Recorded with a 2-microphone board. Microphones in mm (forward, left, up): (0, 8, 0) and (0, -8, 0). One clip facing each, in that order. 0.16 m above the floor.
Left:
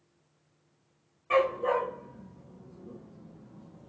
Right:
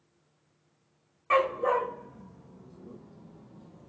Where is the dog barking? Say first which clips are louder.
Right 1 dB; 35° right (ahead or behind), 2.5 m; by 3.9 s 15° right (ahead or behind), 0.9 m.